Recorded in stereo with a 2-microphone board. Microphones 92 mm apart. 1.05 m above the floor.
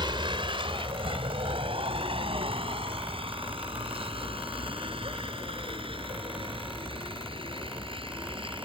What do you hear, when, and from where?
0.0 s a vehicle: 60° right (ahead or behind); by 8.6 s 70° right (ahead or behind)